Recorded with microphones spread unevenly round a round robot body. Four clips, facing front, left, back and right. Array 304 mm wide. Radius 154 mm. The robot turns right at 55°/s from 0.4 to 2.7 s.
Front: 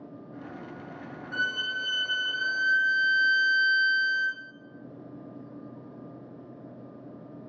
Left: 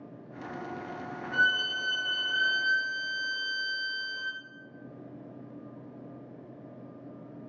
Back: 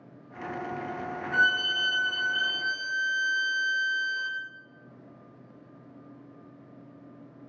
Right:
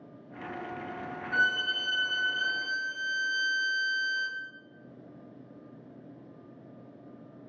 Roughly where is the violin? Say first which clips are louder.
Left 1 dB, back 5 dB; ahead right.